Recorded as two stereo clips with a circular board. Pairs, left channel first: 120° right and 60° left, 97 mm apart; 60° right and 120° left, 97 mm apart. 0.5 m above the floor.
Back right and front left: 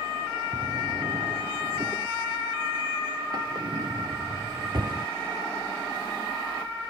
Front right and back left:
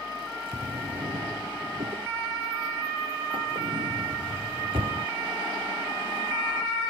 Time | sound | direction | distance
0.5 | a drawer | 100° left | ?